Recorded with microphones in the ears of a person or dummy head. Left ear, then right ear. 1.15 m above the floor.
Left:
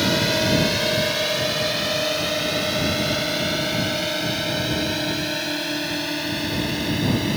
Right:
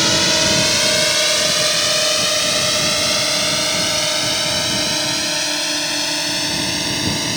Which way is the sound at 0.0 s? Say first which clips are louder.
Right 5 dB; 35° right (ahead or behind).